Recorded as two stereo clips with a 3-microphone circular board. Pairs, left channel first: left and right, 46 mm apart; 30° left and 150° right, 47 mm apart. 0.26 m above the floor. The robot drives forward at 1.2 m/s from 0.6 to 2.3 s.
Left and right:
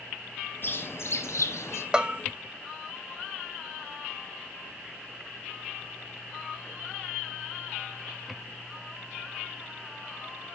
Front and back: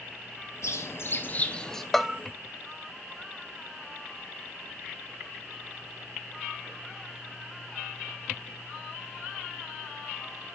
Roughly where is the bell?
Ahead right.